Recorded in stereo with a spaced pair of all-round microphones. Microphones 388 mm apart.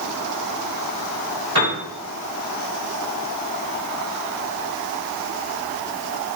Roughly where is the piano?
Right.